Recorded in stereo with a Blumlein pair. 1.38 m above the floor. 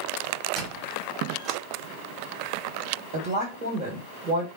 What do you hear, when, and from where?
0.6 s a squeak: 25° right, 1.0 m
3.1 s a woman speaking: 50° right, 1.5 m